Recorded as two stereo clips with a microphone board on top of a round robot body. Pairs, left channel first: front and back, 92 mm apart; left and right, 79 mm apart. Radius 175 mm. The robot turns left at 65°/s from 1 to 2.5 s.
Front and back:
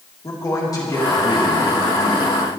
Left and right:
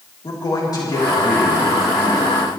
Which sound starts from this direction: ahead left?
A man speaking, at 0.2 s.